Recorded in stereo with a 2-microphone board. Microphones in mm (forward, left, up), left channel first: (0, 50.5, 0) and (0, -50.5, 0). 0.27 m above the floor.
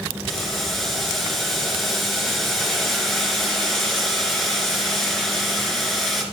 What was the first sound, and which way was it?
Boiling, centre (ahead or behind).